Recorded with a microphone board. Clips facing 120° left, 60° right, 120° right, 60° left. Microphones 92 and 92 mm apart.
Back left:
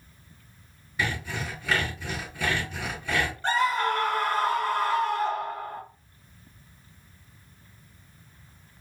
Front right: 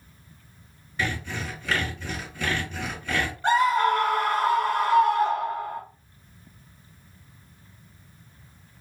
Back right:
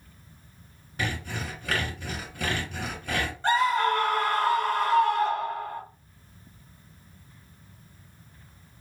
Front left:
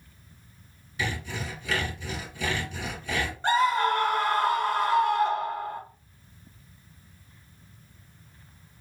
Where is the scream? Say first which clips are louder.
Front right 6 dB, even; 5° left, 1.0 m.